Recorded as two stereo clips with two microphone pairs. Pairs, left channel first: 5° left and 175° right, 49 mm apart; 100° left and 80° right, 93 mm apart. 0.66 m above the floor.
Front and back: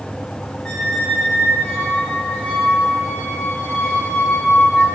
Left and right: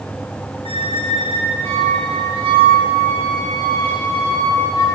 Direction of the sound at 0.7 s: 70° right.